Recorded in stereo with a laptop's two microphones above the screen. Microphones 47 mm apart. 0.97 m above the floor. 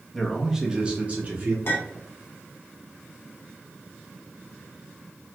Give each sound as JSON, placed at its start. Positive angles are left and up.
{"t": 0.1, "sound": "a man speaking", "side_deg": 5, "distance_m": 0.6}
{"t": 1.6, "sound": "a clink", "side_deg": 55, "distance_m": 1.0}